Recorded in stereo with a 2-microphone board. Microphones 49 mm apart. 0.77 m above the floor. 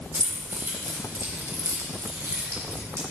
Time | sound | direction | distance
0.1 | keys jangling | 40° right (ahead or behind) | 2.5 m